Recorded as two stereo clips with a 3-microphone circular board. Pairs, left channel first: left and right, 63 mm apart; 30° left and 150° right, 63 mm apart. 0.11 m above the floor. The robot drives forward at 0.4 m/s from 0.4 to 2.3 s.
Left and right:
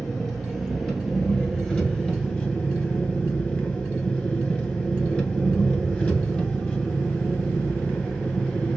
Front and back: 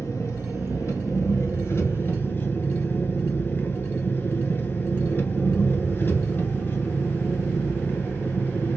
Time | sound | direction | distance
0.0 | an engine running | 15° left | 1.3 m